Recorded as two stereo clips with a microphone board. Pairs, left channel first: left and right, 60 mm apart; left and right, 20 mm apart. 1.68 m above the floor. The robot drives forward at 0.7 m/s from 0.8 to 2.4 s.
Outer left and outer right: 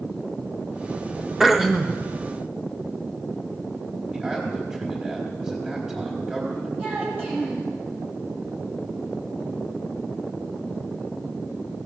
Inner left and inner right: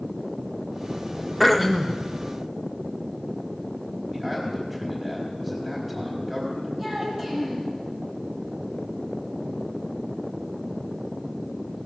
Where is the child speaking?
35° right (ahead or behind), 7 m.